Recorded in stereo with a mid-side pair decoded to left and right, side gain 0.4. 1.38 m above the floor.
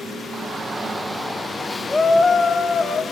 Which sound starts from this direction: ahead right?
A shout, at 0.3 s.